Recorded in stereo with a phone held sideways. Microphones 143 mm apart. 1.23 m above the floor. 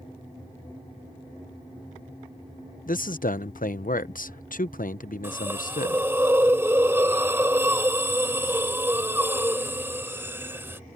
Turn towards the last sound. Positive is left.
turn(degrees=-15)  # may be behind; listen again after turning